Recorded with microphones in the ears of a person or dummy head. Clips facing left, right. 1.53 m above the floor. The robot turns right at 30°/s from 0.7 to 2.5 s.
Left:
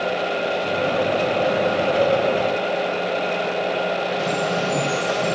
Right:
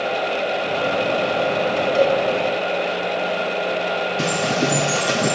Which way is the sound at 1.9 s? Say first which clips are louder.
Right 3 dB; 65° right (ahead or behind).